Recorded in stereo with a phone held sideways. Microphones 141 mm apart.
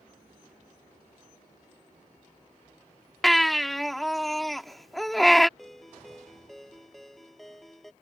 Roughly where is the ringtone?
Centre.